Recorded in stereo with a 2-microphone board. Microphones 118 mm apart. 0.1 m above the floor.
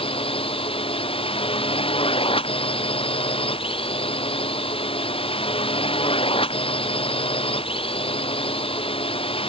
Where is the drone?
55° left (ahead or behind).